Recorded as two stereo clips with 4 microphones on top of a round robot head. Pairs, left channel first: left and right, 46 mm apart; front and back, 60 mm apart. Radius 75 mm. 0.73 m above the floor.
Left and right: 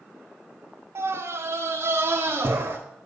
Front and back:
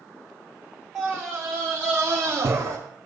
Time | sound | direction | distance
0.9 | a scream | 105° right | 1.9 m